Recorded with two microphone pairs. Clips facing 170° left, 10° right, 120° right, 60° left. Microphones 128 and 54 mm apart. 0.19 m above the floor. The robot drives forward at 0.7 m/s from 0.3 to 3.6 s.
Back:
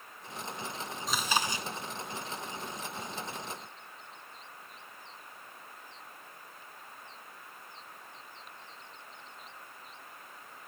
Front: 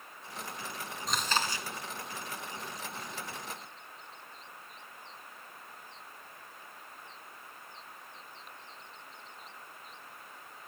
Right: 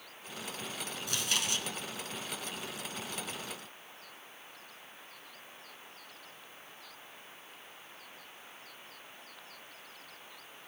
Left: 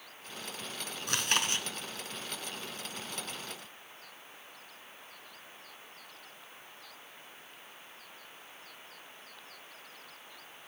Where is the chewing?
80° left, 0.9 m; by 1.7 s 110° left, 1.0 m.